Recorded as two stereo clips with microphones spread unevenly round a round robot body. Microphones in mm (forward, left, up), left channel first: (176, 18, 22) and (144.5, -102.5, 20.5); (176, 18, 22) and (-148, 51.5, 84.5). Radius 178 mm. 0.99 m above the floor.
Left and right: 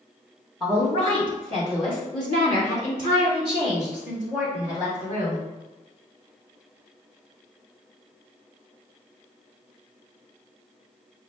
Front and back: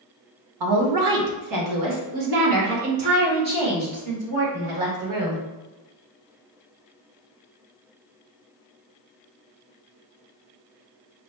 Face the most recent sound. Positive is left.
turn(degrees=125)